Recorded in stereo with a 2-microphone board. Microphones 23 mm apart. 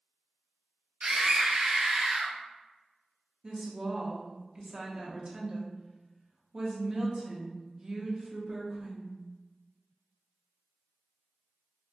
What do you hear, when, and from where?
1.0 s a scream: 55° right (ahead or behind), 0.9 m; by 2.4 s 45° right (ahead or behind), 1.3 m
3.4 s a woman speaking: 35° right (ahead or behind), 0.9 m